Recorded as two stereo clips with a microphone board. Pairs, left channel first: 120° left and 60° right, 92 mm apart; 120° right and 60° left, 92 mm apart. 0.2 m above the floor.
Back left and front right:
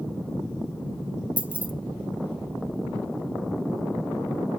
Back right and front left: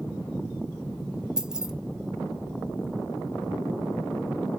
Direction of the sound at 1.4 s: 10° right.